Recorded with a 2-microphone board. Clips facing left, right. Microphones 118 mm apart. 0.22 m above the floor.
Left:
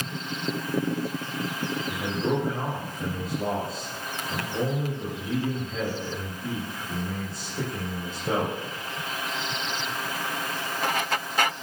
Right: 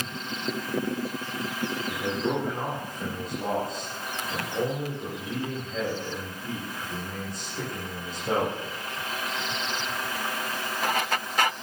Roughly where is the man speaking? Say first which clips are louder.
Left 1 dB; centre.